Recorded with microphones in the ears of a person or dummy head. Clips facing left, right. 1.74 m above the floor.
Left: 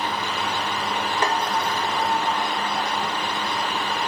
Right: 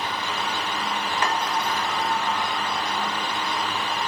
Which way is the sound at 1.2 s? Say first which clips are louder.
Left 2 dB; 30° left (ahead or behind).